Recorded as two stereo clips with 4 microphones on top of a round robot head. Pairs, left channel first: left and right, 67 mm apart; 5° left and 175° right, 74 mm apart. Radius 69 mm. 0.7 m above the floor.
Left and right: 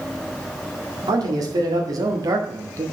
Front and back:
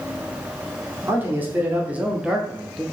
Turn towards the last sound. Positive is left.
turn(degrees=-75)